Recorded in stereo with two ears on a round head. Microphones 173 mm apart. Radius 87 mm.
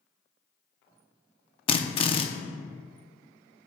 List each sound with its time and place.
1.7 s a drill: 30° left (ahead or behind), 0.7 m